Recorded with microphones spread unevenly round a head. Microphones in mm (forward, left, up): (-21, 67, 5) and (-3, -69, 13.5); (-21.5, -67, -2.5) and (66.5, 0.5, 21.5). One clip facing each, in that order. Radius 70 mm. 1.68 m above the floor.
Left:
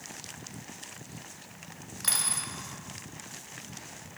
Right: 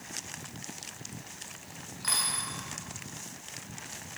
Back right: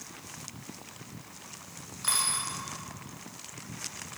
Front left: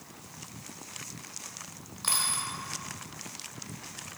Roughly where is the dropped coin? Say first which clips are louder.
Right 2 dB, even; left.